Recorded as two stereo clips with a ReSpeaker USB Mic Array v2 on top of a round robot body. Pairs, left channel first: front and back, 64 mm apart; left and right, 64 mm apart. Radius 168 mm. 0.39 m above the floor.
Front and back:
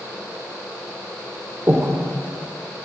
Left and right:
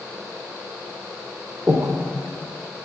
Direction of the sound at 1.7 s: 135° right.